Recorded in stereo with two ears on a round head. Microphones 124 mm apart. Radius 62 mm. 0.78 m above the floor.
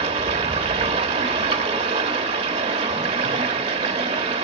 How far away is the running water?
About 1.2 m.